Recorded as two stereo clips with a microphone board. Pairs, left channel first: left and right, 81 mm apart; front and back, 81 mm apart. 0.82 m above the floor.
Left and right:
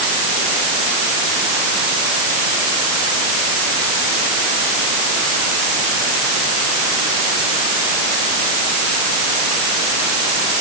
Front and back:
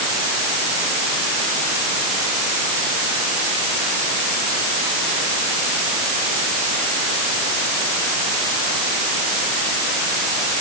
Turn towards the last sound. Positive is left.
No sound to turn to.